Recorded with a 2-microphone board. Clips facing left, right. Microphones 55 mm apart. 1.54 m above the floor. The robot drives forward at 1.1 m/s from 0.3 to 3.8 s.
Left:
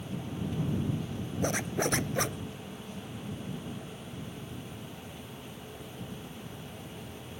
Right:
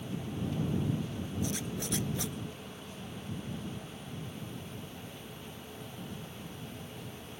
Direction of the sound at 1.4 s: 55° left (ahead or behind).